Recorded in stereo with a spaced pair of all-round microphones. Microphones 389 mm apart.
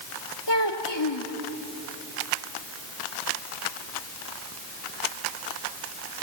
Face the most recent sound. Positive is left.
turn(degrees=80)